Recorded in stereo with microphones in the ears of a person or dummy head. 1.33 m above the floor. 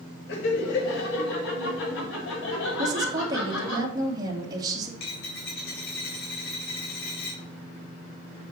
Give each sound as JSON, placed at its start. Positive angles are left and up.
{"t": 0.3, "sound": "laughter", "side_deg": 70, "distance_m": 2.5}
{"t": 2.8, "sound": "a woman speaking", "side_deg": -20, "distance_m": 2.5}
{"t": 5.0, "sound": "a dropped coin", "side_deg": 70, "distance_m": 3.0}